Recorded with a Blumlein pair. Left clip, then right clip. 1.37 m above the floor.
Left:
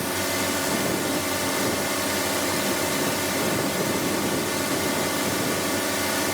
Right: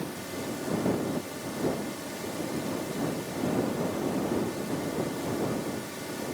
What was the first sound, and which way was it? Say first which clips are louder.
A drone: left 11 dB; 35° left.